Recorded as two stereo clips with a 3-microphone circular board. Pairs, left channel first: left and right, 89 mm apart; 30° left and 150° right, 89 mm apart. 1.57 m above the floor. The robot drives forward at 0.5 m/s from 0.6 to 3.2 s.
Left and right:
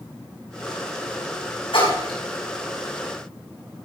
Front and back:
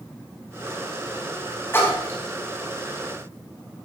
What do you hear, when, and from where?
1.7 s a splash: 95° left, 5 m